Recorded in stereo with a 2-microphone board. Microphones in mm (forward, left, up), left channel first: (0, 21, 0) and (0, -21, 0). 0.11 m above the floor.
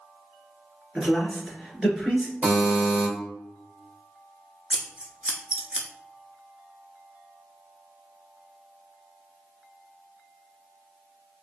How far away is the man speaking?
About 1.7 m.